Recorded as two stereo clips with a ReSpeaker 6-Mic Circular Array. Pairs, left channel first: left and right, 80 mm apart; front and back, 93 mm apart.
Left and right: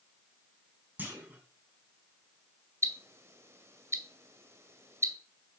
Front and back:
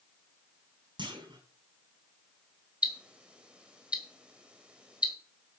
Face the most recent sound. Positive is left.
turn(degrees=-110)